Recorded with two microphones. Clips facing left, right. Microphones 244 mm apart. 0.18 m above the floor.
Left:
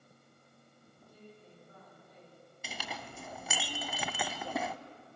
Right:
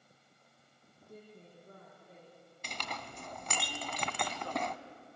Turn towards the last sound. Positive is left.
turn(degrees=5)  # may be behind; listen again after turning